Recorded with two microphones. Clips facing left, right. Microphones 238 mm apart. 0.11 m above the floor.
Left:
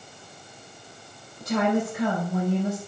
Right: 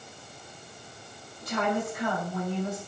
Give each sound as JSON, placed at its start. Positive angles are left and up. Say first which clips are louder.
{"t": 1.4, "sound": "a woman speaking", "louder": "left 6 dB", "side_deg": 75, "distance_m": 5.5}